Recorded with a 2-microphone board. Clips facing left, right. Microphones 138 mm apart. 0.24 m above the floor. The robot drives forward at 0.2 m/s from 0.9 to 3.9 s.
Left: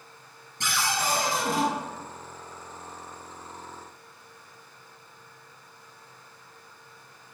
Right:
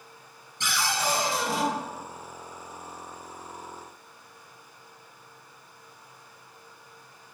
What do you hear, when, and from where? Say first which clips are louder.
0.6 s a cupboard door: even; 50° left (ahead or behind), 1.0 m; by 1.7 s 55° left (ahead or behind), 0.9 m